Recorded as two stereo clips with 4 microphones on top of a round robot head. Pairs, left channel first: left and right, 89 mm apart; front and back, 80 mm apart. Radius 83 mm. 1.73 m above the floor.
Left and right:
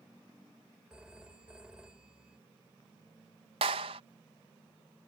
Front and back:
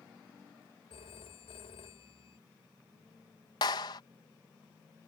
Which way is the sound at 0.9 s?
10° right.